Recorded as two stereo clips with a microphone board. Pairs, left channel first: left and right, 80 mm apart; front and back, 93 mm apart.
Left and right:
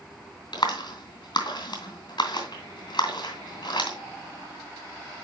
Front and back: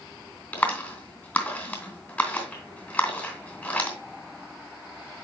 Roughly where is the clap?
Left.